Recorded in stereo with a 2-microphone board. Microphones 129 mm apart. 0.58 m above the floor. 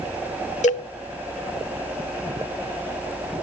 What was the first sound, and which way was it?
A cowbell, 70° left (ahead or behind).